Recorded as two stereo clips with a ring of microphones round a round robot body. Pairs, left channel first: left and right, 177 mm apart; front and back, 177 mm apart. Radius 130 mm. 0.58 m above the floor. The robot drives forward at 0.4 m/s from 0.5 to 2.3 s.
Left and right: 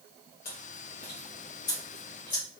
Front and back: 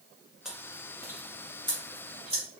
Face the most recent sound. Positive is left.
turn(degrees=130)